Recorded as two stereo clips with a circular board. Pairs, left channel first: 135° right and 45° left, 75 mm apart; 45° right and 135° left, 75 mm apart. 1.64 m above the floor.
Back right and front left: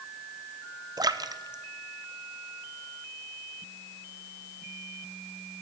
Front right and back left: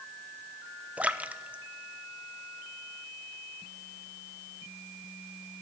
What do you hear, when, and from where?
1.0 s a splash: 65° left, 0.6 m